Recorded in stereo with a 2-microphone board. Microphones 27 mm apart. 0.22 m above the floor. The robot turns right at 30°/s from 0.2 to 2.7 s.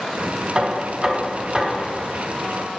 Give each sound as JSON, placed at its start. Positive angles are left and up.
{"t": 0.6, "sound": "knocking", "azimuth_deg": -65, "distance_m": 1.2}